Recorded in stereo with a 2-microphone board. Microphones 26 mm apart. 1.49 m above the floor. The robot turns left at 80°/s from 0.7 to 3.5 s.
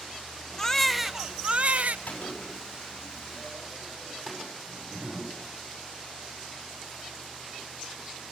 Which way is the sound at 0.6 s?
15° left.